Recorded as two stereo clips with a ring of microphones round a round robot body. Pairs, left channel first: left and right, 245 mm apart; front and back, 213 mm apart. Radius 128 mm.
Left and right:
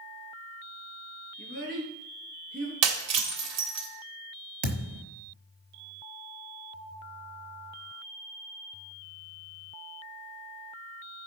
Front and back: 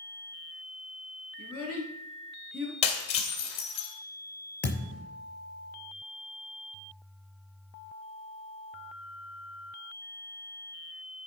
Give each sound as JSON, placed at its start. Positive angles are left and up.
{"t": 1.4, "sound": "a child speaking", "azimuth_deg": -145, "distance_m": 5.0}
{"t": 2.8, "sound": "breaking glass", "azimuth_deg": -65, "distance_m": 1.8}
{"t": 4.6, "sound": "a thud", "azimuth_deg": -85, "distance_m": 4.5}